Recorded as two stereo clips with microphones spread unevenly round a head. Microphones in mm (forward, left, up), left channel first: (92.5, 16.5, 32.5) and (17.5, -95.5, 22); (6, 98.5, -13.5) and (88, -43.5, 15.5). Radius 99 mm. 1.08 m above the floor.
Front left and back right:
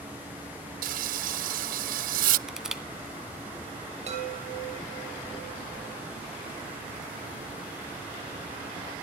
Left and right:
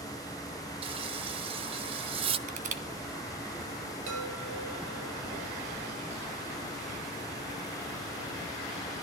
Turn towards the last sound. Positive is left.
turn(degrees=-90)